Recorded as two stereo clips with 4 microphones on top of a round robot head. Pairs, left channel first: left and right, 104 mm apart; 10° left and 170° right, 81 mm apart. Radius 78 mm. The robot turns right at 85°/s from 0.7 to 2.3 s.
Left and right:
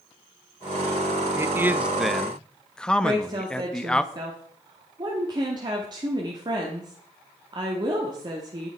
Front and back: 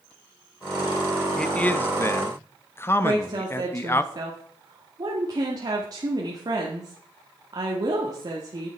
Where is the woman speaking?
135° right, 1.3 m.